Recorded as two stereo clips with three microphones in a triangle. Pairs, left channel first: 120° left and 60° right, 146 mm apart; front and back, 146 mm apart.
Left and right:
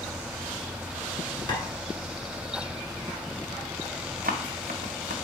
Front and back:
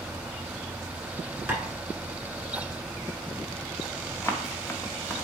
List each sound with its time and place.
1.5 s tapping: 115° left, 1.1 m
4.2 s running footsteps: 75° right, 0.8 m